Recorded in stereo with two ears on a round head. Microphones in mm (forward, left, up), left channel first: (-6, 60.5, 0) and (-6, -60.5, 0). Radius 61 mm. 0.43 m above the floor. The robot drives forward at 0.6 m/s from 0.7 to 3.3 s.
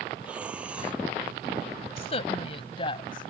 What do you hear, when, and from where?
0.2 s breathing: 10° right (ahead or behind)
2.0 s a woman speaking: 50° left (ahead or behind); by 3.3 s 40° left (ahead or behind)